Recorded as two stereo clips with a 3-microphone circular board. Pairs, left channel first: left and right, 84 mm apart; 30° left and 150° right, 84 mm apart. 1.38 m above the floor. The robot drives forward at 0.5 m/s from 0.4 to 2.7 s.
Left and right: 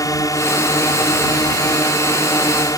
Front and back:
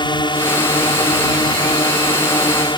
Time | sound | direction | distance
0.0 | a drone | 45° left | ?